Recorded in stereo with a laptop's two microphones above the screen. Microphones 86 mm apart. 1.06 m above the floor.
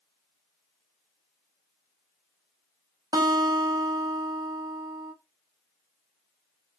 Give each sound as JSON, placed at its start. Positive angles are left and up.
{"t": 3.1, "sound": "a guitar", "side_deg": -50, "distance_m": 0.7}